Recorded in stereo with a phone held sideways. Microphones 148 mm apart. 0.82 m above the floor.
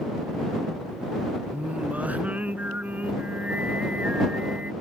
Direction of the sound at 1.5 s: 10° right (ahead or behind).